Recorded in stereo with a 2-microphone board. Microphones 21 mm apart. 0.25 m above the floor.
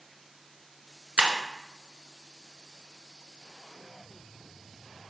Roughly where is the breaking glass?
Right.